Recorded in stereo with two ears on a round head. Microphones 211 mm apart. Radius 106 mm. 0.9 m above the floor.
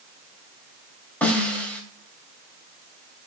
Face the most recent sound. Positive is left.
turn(degrees=5)  # may be behind; listen again after turning